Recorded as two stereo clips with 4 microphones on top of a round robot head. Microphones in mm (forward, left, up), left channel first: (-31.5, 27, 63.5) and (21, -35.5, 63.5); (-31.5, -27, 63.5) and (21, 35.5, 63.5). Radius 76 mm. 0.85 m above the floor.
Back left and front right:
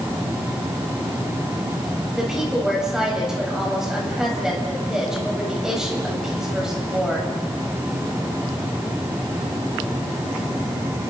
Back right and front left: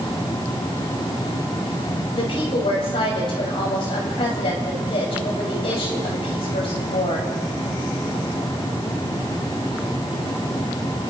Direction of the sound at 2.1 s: 135° right.